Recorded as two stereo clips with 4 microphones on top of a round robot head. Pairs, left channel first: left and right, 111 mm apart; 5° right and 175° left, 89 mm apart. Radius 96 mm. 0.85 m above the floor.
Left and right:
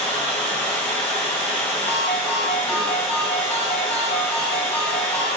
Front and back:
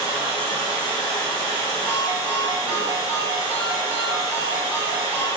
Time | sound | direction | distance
0.0 | running water | 165° left | 1.3 m
1.9 | a ringtone | 110° left | 1.3 m